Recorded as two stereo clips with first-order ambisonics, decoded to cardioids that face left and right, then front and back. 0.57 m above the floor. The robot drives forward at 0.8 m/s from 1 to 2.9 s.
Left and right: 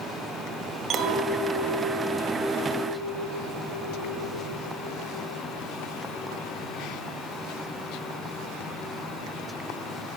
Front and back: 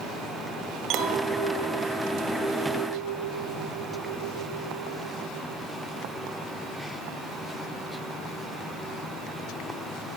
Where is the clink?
145° right, 1.7 m; by 5.4 s 160° right, 3 m.